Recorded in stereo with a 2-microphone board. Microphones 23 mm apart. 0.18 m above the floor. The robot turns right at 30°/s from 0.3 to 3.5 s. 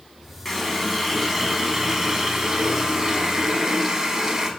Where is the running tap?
10° left (ahead or behind), 0.8 m; by 4.5 s 25° right (ahead or behind), 0.8 m.